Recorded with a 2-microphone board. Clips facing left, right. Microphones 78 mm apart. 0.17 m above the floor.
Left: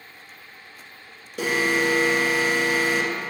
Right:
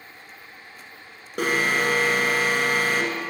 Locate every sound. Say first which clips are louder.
1.4 s an alarm: even; 55° right (ahead or behind), 1.8 m